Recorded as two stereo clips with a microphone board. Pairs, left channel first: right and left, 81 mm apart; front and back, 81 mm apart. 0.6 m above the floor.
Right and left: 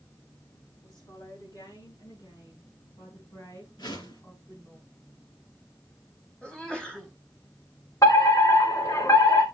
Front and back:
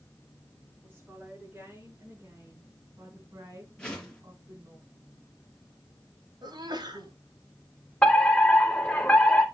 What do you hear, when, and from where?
0.8 s a woman speaking: 115° right, 9 m; by 4.8 s 140° right, 6 m
3.8 s a whoosh: 80° right, 5 m
6.4 s a sneeze: 165° right, 3.5 m
8.0 s a fire alarm: 70° right, 3 m